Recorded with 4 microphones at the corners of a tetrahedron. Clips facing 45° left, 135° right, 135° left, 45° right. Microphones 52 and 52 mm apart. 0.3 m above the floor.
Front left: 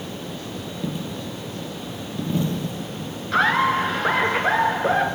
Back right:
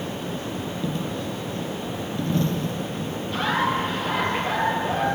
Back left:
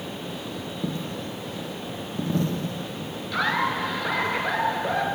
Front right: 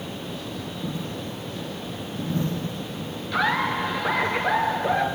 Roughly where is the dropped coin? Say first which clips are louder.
Even, back left 1 dB; behind left.